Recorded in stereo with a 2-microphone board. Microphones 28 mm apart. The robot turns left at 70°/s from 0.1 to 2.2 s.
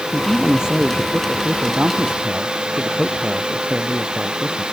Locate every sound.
0.1 s a man speaking: 10° left; by 4.7 s 140° right